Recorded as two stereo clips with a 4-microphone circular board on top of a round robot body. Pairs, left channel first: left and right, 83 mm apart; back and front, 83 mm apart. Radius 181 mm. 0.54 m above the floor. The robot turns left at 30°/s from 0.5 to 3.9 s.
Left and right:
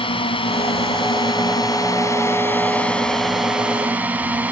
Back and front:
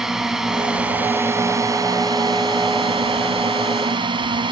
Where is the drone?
85° left; by 4.5 s 20° right.